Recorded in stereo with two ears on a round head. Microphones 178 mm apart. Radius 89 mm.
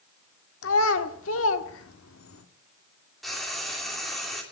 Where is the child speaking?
80° left, 1.6 m.